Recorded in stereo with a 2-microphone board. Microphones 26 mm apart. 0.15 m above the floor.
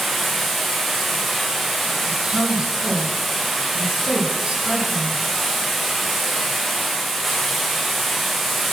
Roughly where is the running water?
Centre.